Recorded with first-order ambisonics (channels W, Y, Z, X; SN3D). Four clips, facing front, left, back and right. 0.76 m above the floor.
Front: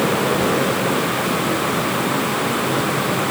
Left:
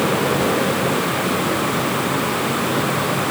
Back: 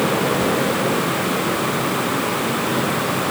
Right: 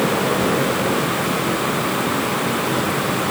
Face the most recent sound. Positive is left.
No sound to turn to.